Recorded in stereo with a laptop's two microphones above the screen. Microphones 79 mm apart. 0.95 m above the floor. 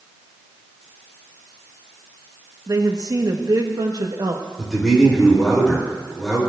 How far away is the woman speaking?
About 1.0 m.